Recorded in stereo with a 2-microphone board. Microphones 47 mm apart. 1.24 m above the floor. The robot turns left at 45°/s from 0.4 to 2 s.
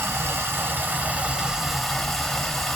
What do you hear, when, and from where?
0.0 s running water: 115° right, 0.8 m; by 2.8 s 170° left, 0.8 m